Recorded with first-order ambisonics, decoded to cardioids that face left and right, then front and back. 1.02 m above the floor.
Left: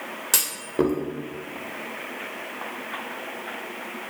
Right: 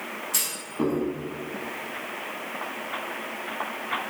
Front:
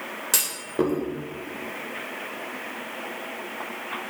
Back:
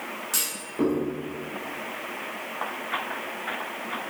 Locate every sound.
0.3 s a clunk: 60° left, 2 m